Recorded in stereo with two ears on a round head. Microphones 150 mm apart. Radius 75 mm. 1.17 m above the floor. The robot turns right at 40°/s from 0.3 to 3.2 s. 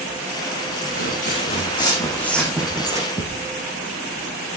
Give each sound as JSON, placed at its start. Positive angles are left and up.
{"t": 0.9, "sound": "footsteps", "side_deg": 65, "distance_m": 5.0}
{"t": 3.2, "sound": "a thud", "side_deg": 25, "distance_m": 4.0}